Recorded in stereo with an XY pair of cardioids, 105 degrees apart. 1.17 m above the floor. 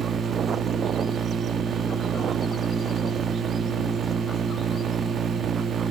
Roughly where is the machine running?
Ahead right.